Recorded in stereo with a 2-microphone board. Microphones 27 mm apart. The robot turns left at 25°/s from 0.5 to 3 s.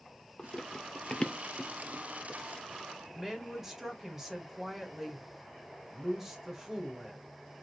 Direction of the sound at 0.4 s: 25° left (ahead or behind).